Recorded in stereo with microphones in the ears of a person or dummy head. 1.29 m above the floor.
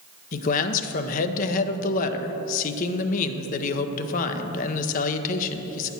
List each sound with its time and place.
0.3 s a man speaking: 45° left (ahead or behind), 0.7 m